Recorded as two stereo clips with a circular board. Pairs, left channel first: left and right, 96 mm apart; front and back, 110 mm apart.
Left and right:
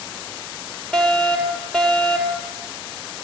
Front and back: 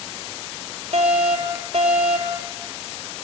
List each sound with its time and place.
0.9 s a fire alarm: 175° left, 6 m